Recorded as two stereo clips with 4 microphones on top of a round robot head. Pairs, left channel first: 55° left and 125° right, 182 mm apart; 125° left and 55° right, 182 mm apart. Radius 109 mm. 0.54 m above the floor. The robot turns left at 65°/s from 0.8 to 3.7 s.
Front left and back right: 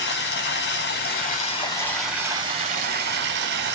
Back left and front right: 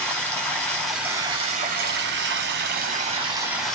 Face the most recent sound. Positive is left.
turn(degrees=-145)